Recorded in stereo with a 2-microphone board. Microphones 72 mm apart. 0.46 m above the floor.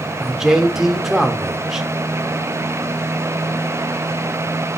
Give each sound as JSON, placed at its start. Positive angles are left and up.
{"t": 0.2, "sound": "a man speaking", "side_deg": -5, "distance_m": 1.3}